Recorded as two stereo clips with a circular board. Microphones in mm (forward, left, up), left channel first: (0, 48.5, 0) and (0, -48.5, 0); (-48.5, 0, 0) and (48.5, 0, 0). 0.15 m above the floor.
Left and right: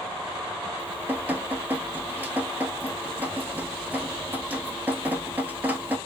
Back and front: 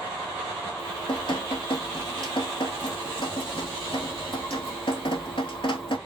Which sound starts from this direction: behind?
Dripping, at 0.8 s.